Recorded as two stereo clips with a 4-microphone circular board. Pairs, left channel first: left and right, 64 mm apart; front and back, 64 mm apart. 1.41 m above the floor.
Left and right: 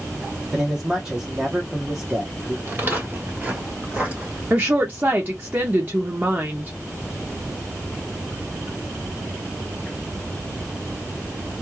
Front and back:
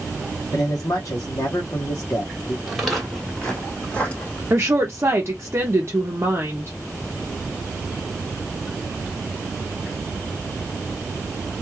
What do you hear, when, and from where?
0.5 s a man speaking: 15° right, 0.7 m
2.7 s footsteps: 95° right, 1.6 m; by 4.4 s 30° right, 1.7 m
4.5 s a woman speaking: 140° right, 0.5 m